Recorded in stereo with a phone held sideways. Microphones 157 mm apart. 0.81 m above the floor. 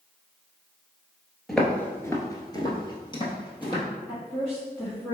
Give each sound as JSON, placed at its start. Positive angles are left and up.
{"t": 1.5, "sound": "footsteps", "side_deg": 0, "distance_m": 0.9}
{"t": 4.1, "sound": "a woman speaking", "side_deg": 10, "distance_m": 1.5}